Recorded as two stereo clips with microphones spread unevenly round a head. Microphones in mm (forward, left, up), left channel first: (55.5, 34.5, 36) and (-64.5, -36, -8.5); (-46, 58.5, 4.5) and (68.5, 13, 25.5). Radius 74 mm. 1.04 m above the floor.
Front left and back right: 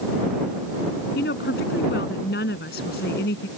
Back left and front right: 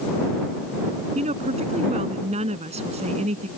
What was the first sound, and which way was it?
A woman speaking, 10° left.